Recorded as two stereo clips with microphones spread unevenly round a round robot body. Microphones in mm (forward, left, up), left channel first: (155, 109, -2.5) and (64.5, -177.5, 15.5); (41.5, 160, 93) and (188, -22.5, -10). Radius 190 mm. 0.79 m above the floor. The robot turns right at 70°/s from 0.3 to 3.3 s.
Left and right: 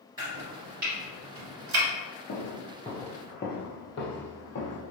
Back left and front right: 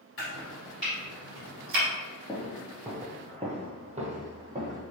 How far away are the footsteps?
About 0.9 m.